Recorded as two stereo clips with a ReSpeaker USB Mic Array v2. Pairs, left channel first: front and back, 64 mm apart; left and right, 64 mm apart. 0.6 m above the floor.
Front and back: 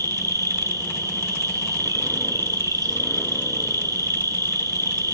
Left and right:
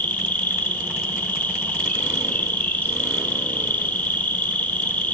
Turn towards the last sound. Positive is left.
turn(degrees=160)